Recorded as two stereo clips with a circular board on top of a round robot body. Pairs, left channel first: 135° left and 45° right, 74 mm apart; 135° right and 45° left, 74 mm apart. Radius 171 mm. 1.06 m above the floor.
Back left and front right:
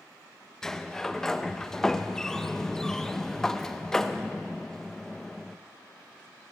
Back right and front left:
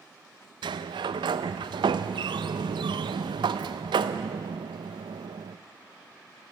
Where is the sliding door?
50° left, 0.5 m.